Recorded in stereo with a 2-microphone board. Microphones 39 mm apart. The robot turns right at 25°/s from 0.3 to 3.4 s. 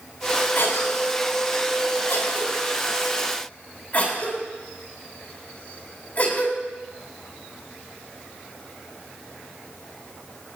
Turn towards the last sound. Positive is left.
turn(degrees=40)  # may be behind; listen again after turning